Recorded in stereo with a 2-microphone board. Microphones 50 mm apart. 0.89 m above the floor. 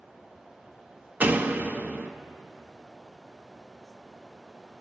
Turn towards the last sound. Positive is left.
turn(degrees=-30)  # may be behind; listen again after turning